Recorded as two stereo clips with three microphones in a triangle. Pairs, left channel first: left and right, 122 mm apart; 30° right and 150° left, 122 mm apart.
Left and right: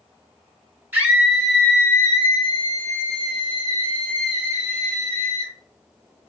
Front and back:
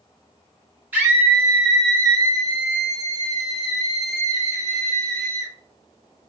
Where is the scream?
150° right, 1.1 m; by 5.5 s 90° left, 3 m.